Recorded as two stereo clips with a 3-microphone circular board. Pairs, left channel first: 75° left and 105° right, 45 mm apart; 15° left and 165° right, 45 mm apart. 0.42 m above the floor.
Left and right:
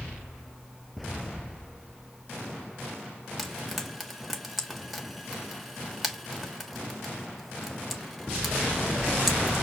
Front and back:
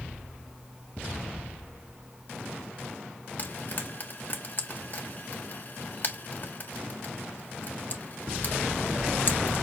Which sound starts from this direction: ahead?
Frying, at 3.4 s.